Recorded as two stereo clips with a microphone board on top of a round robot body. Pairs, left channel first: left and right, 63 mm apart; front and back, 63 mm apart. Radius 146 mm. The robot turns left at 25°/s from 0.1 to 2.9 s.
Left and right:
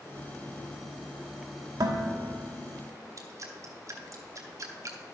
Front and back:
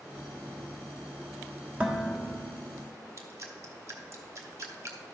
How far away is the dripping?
About 0.8 m.